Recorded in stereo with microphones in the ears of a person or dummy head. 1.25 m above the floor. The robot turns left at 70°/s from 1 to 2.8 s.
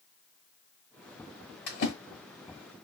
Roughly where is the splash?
Left.